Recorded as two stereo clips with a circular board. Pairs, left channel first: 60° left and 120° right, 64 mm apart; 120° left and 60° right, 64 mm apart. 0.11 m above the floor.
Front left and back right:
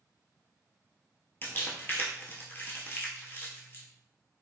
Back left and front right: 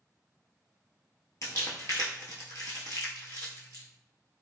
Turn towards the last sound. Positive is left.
turn(degrees=110)